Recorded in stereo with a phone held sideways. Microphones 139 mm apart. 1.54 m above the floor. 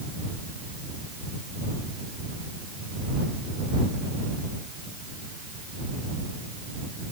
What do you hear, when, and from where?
Only background noise.